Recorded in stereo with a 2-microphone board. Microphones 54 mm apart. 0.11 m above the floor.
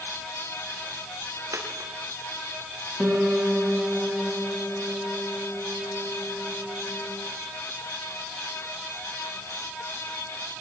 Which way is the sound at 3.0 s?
20° right (ahead or behind).